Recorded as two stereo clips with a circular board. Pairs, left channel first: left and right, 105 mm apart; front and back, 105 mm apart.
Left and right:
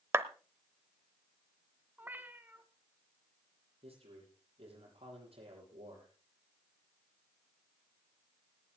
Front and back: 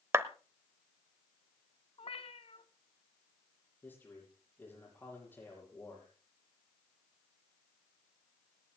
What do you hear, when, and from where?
0.1 s a clap: 135° right, 1.0 m
2.0 s a cat meowing: 20° right, 1.2 m
3.8 s a man speaking: 70° right, 9 m